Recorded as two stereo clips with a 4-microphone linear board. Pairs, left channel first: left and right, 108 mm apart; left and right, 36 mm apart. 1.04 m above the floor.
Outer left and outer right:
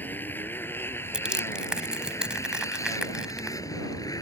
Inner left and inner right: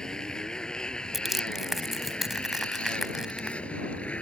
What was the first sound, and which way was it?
A motorcycle, 15° left (ahead or behind).